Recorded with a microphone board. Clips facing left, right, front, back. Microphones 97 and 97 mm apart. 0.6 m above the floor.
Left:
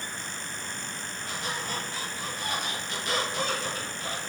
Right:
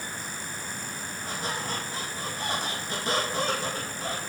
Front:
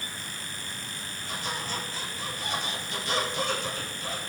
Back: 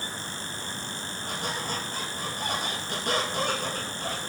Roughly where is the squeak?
Behind right.